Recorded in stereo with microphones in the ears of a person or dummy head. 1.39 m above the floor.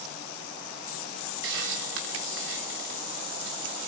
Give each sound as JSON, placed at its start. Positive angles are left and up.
{"t": 1.4, "sound": "a hiss", "side_deg": -65, "distance_m": 1.8}